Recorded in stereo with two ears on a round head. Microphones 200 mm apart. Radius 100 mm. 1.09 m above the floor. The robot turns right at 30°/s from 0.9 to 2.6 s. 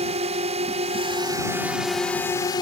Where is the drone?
30° right; by 2.6 s 20° left.